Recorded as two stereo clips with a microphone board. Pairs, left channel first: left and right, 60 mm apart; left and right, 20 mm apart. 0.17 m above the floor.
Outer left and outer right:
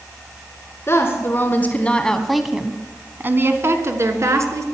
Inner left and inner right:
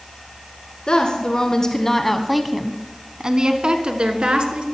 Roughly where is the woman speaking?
Left.